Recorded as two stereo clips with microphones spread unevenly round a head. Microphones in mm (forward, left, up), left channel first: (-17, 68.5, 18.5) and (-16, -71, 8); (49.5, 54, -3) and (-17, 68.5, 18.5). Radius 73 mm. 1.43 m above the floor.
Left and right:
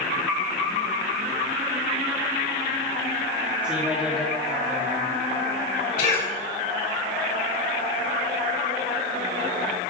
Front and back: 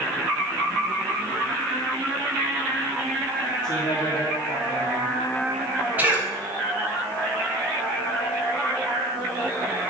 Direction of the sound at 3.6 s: 10° right.